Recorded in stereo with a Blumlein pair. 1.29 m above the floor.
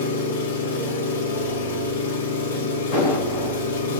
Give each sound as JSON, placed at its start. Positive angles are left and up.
{"t": 0.0, "sound": "an engine running", "azimuth_deg": 65, "distance_m": 0.9}
{"t": 2.9, "sound": "an explosion", "azimuth_deg": 50, "distance_m": 1.9}